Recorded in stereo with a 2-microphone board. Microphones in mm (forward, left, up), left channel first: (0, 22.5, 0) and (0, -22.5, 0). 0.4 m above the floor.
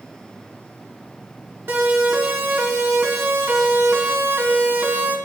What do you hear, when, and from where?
1.7 s a siren: 60° right (ahead or behind), 5.5 m; by 5.2 s 50° right (ahead or behind), 3.5 m